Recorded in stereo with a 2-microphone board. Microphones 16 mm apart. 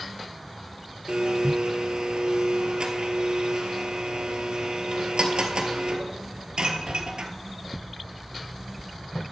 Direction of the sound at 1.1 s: 80° right.